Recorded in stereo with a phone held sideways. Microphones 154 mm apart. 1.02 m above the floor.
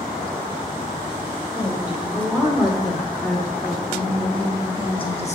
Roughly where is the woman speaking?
Centre.